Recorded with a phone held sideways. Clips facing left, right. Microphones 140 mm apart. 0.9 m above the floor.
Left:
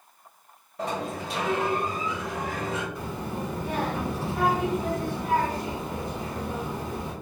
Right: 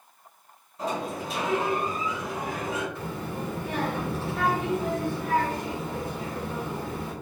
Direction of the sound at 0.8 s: 65° left (ahead or behind).